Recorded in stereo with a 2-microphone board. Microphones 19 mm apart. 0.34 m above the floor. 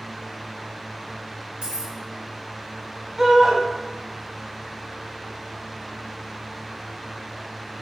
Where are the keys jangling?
75° right (ahead or behind), 3.5 m.